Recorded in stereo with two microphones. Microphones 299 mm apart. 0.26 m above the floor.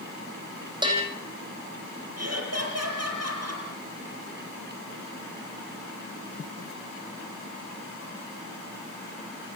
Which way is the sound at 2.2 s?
50° right (ahead or behind).